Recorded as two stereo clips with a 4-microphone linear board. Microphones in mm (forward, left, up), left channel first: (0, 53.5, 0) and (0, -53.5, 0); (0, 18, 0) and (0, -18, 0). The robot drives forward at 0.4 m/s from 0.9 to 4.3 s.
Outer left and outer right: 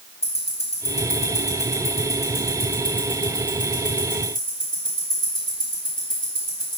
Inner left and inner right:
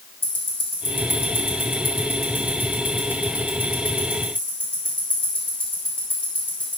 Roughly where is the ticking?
Left.